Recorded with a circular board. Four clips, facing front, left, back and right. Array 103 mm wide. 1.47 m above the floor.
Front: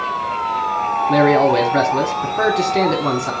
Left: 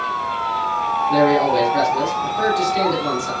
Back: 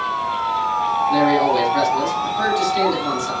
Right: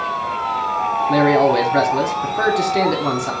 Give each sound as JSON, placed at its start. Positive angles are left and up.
{"t": 1.1, "sound": "a man speaking", "azimuth_deg": -35, "distance_m": 1.5}